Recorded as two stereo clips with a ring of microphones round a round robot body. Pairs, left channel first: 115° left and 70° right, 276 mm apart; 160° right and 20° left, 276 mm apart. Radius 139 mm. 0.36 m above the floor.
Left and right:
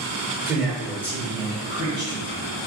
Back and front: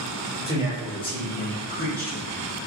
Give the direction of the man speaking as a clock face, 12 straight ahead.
12 o'clock.